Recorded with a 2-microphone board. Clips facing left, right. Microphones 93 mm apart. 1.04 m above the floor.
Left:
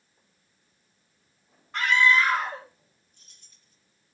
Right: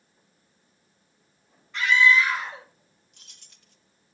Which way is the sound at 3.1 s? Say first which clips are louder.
Right 5 dB; 75° right (ahead or behind).